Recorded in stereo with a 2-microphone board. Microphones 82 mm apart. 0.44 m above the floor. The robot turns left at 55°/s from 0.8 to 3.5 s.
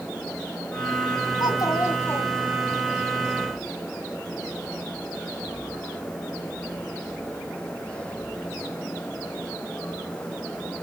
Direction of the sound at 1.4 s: 70° left.